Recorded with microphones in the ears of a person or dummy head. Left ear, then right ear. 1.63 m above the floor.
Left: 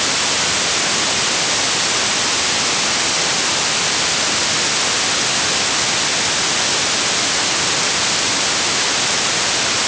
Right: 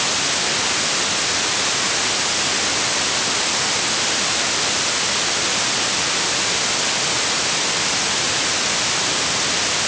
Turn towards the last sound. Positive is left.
No sound to turn to.